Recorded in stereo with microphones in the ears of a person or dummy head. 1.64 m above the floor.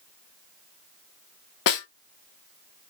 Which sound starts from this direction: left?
A snare drum, at 1.7 s.